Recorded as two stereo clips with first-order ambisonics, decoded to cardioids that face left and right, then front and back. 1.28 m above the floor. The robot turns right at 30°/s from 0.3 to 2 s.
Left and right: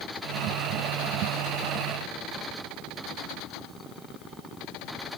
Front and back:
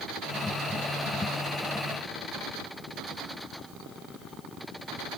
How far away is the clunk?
No clunk in this recording.